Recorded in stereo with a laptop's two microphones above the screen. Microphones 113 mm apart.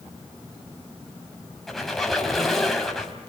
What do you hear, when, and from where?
1.7 s a squeak: centre (ahead or behind), 4.5 m